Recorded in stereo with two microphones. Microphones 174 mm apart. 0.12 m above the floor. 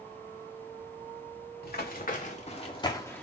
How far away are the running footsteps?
About 1.7 m.